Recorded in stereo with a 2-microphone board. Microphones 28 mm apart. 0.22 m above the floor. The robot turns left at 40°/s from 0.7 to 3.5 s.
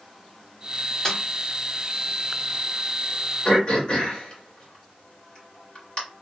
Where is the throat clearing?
40° left (ahead or behind), 1.4 m.